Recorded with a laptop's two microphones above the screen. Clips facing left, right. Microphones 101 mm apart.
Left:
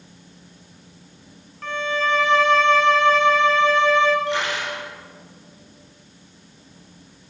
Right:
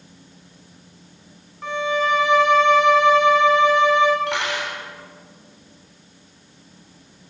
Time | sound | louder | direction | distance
1.6 | a violin | right 2 dB | 15° right (ahead or behind) | 0.6 m
4.3 | cutlery clinking | left 1 dB | 85° right | 4 m